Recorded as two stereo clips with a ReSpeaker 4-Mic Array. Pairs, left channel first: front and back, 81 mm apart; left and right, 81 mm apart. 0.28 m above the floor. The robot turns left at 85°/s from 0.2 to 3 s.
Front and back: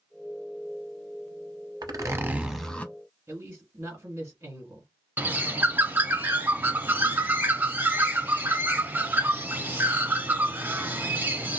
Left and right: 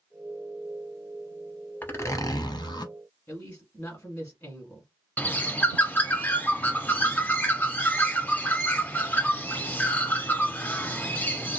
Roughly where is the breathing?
No breathing in this recording.